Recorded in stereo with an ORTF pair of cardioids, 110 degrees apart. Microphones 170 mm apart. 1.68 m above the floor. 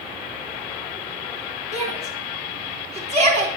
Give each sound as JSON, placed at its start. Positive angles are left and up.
{"t": 1.7, "sound": "a shout", "azimuth_deg": -45, "distance_m": 4.5}